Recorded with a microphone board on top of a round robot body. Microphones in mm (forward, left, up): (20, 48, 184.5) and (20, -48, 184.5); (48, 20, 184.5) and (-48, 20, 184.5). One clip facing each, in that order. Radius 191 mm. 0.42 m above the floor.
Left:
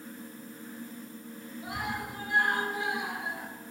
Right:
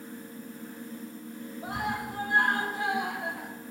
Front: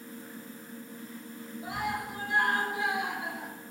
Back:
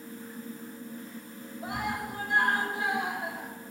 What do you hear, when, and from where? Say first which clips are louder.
1.6 s a scream: right 3 dB, back 1 dB; 140° right, 8.5 m; by 3.5 s 130° right, 9.5 m